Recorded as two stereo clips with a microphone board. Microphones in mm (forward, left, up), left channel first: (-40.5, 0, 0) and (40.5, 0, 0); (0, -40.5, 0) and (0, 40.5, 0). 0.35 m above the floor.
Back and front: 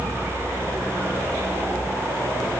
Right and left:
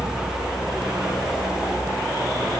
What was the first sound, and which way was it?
Only background noise.